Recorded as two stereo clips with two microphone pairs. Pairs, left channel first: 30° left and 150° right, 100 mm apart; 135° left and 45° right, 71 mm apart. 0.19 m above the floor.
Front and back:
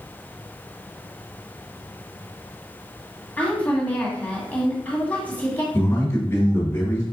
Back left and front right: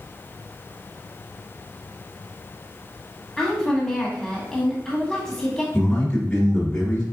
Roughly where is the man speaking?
Left.